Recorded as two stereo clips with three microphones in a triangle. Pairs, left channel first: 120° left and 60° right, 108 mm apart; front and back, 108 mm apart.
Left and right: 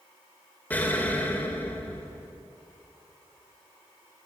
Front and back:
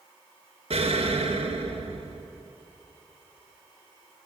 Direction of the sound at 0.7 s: 165° right.